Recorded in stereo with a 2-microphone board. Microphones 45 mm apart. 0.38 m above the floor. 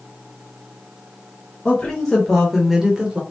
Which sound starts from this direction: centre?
A woman speaking, at 1.6 s.